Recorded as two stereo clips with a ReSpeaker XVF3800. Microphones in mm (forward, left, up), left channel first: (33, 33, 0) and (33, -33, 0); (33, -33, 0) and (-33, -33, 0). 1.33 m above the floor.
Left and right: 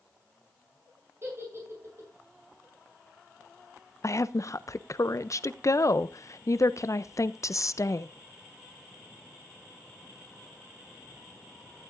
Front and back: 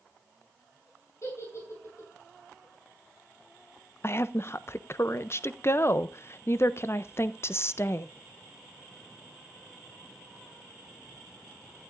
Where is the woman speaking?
50° left, 0.5 m.